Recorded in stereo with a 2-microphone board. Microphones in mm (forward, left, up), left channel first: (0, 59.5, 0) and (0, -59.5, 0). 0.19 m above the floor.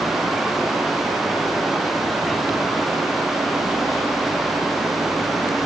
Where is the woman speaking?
No woman speaking in this recording.